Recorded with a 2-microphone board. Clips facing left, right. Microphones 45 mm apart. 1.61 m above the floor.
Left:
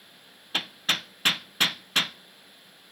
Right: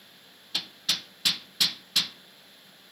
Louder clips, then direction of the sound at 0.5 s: Left 4 dB; 35° left (ahead or behind).